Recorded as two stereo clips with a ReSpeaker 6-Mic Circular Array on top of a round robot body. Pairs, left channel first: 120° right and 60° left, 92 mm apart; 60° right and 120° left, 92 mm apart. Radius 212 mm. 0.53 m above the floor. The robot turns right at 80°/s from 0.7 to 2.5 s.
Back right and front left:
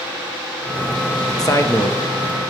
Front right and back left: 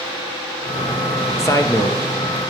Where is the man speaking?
100° right, 1.2 m; by 2.0 s 55° right, 1.2 m.